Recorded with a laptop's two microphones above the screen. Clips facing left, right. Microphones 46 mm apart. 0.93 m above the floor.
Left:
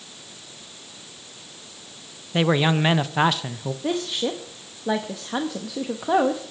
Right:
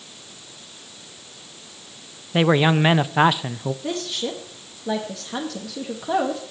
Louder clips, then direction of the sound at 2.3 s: Right 3 dB; 15° right (ahead or behind).